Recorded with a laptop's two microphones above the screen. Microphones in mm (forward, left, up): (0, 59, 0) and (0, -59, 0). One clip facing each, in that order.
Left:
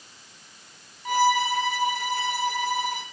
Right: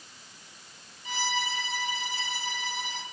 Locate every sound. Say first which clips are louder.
1.1 s a violin: left 11 dB; 55° left (ahead or behind), 1.4 m